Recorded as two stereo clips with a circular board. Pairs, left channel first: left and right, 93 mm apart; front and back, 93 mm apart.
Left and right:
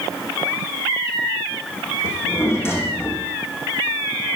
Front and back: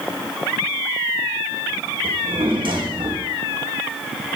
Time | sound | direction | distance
2.0 | a drawer | 150° left | 5 m